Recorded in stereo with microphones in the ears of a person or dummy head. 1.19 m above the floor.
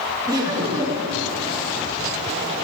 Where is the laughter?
20° right (ahead or behind), 1.9 m.